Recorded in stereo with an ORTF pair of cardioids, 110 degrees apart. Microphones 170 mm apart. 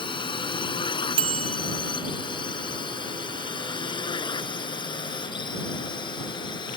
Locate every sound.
0.0 s a drone: 30° left; by 6.8 s 25° left
1.2 s a bicycle bell: 30° right